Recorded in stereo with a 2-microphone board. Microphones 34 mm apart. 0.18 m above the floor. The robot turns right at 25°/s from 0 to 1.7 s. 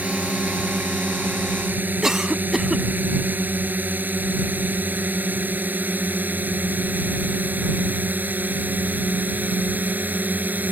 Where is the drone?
50° right (ahead or behind); by 10.7 s 60° right (ahead or behind).